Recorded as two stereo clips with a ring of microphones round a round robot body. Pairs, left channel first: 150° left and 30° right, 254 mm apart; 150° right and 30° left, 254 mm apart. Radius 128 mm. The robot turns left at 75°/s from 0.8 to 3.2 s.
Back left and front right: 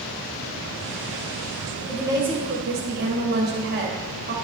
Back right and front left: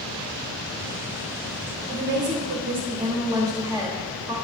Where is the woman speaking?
60° left, 1.3 m; by 4.3 s 40° right, 1.3 m.